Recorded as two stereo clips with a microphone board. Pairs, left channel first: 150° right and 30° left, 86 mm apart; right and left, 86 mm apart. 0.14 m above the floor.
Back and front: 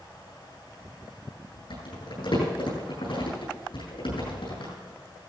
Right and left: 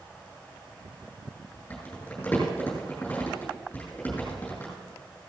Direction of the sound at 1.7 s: 160° right.